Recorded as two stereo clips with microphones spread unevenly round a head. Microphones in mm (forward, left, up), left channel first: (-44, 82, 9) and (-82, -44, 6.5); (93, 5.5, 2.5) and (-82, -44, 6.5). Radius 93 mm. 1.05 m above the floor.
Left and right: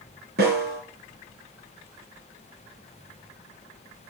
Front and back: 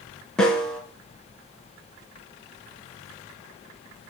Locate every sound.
0.4 s a snare drum: 70° right, 3 m